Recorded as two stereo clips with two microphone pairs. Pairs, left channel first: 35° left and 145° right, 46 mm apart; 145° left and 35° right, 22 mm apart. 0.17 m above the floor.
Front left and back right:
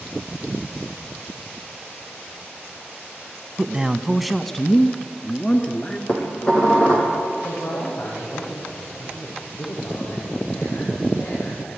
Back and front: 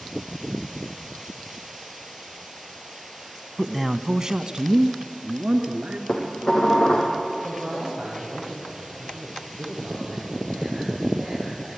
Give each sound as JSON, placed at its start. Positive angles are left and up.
{"t": 3.6, "sound": "a man speaking", "azimuth_deg": -140, "distance_m": 1.0}
{"t": 6.1, "sound": "dishes clattering", "azimuth_deg": 95, "distance_m": 5.0}
{"t": 7.4, "sound": "a man speaking", "azimuth_deg": 40, "distance_m": 8.5}